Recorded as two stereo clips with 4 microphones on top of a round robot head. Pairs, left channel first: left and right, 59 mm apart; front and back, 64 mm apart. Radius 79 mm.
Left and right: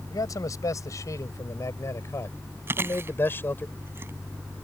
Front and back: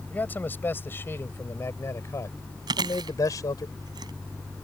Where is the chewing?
150° right.